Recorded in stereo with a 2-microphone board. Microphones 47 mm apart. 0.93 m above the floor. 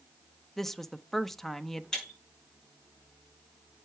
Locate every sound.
0.6 s a woman speaking: 5° left (ahead or behind), 0.6 m
1.9 s breaking glass: 10° left (ahead or behind), 5.5 m